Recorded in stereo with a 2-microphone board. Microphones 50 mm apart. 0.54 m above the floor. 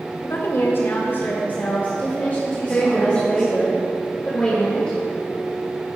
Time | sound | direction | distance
0.2 | a woman speaking | 55° left (ahead or behind) | 1.2 m
2.7 | a woman speaking | 20° left (ahead or behind) | 1.8 m